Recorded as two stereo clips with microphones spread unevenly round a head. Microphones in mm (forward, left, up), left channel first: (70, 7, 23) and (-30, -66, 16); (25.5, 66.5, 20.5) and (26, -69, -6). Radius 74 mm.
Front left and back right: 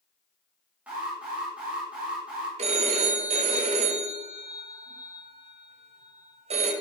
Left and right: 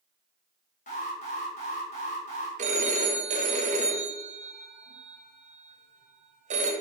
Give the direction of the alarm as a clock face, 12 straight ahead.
8 o'clock.